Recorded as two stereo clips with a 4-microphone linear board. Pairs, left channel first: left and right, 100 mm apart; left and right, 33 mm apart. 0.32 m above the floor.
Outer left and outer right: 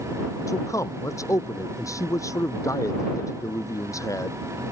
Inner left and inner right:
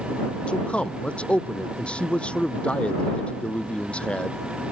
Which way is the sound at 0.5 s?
35° left (ahead or behind).